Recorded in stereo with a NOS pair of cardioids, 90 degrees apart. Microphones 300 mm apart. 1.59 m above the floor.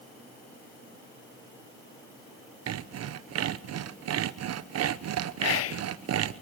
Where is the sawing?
60° right, 0.9 m.